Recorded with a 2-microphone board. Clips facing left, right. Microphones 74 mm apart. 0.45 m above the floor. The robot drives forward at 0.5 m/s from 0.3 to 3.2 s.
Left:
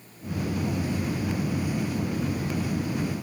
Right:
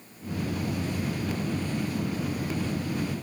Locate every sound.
Only background noise.